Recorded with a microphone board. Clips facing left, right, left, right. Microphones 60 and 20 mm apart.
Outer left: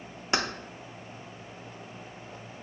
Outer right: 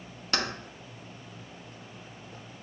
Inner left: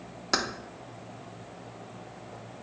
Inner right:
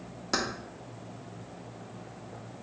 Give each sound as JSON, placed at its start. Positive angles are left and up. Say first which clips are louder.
{"t": 0.3, "sound": "keys jangling", "louder": "outer left 2 dB, inner left 2 dB", "side_deg": 20, "distance_m": 0.5}